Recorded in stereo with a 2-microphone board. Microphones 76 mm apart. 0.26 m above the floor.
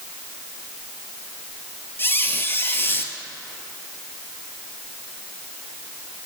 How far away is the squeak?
About 0.7 m.